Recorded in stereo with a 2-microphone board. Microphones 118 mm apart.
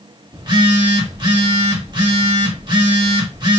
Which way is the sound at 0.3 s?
40° right (ahead or behind).